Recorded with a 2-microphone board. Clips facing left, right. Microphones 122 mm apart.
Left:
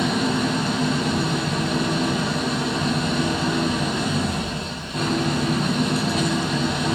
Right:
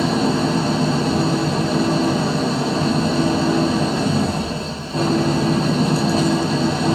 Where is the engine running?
30° right (ahead or behind), 1.4 m.